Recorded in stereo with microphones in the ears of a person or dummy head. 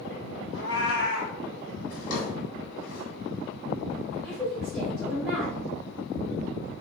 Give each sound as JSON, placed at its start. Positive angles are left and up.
{"t": 0.5, "sound": "a cat meowing", "side_deg": 65, "distance_m": 2.0}
{"t": 1.9, "sound": "a drawer", "side_deg": 60, "distance_m": 1.6}
{"t": 4.1, "sound": "a woman speaking", "side_deg": -5, "distance_m": 1.8}